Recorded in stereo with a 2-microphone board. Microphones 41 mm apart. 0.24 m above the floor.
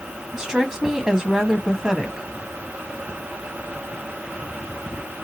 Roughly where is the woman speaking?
Centre.